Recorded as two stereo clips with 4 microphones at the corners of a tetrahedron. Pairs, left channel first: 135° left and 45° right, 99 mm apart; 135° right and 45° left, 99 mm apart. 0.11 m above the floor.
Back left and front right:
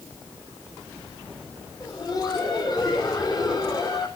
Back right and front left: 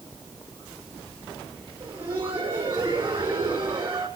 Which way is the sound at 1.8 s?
105° left.